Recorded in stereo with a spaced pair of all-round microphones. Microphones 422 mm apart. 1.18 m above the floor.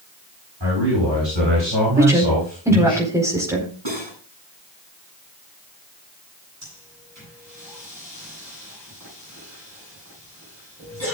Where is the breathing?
40° right (ahead or behind), 8 m.